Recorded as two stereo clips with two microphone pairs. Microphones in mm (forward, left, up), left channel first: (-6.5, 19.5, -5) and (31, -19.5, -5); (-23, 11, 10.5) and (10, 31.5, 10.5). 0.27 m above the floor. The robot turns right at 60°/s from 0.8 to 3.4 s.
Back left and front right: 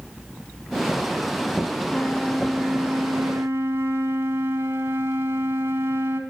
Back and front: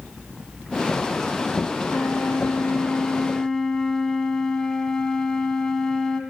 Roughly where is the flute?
Behind.